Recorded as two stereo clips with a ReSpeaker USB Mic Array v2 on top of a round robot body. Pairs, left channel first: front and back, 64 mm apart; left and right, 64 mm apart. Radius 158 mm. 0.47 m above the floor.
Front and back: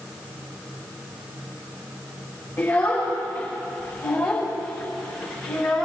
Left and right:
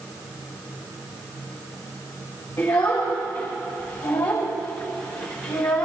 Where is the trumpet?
I don't hear a trumpet.